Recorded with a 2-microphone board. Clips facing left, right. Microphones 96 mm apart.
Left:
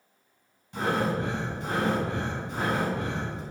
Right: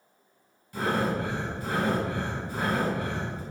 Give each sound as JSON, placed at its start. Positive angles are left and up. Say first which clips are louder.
{"t": 0.7, "sound": "breathing", "louder": "even", "side_deg": 20, "distance_m": 2.5}